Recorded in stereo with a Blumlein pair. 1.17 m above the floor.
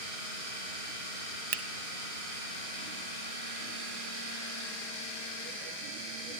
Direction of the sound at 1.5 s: 45° right.